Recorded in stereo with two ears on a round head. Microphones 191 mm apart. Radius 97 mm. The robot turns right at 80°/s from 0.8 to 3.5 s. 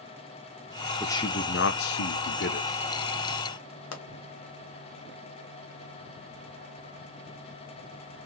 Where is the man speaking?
10° left, 0.8 m; by 2.7 s 140° left, 0.8 m.